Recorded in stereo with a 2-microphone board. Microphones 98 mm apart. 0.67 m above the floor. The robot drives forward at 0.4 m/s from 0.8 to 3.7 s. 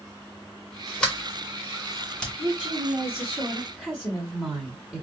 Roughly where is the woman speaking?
Centre.